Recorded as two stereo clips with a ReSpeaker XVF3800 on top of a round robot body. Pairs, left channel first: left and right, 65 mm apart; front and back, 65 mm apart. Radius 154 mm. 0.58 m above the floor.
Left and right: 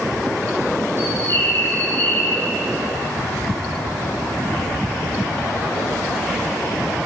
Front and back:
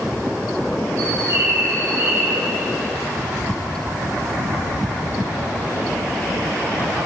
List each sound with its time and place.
1.0 s a bird: 140° left, 2.5 m